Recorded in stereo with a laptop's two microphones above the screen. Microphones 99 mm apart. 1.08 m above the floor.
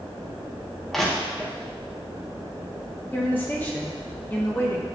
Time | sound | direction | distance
0.9 | crushing | centre (ahead or behind) | 0.7 m
3.1 | a woman speaking | 20° left (ahead or behind) | 0.6 m